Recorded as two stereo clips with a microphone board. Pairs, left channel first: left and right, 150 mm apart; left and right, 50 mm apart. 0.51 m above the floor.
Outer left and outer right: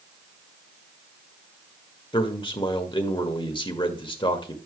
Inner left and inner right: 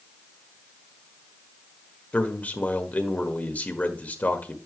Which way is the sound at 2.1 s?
35° left (ahead or behind).